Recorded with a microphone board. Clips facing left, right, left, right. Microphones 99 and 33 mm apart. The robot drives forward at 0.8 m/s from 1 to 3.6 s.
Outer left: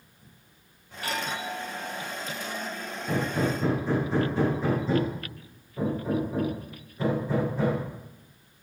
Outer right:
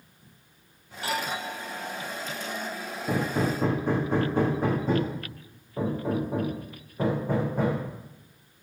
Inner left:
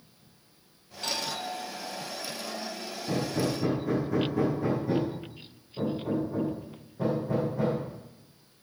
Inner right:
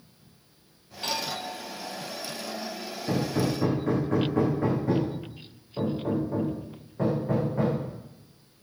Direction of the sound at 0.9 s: 25° right (ahead or behind).